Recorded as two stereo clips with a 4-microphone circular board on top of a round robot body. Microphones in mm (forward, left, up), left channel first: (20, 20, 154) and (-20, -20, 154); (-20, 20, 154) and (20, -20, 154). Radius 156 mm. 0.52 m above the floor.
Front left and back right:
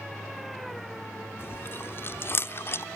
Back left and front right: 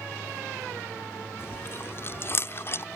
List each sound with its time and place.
1.4 s chewing: 90° left